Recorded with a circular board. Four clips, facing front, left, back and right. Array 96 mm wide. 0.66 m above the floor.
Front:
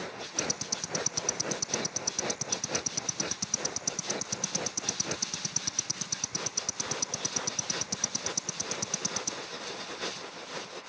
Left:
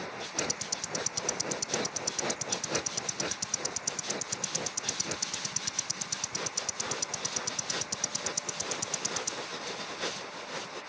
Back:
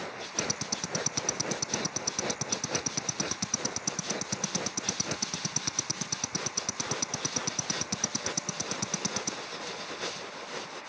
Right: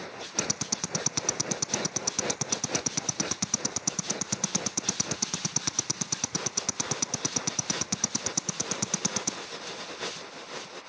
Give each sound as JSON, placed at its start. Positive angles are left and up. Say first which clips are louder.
{"t": 0.4, "sound": "ticking", "louder": "right 4 dB, back 2 dB", "azimuth_deg": -110, "distance_m": 0.9}